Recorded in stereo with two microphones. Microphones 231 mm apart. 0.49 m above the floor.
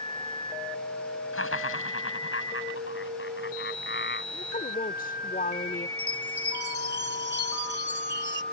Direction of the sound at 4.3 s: 35° left (ahead or behind).